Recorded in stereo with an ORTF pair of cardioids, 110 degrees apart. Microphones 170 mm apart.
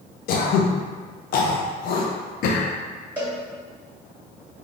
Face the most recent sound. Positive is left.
turn(degrees=-10)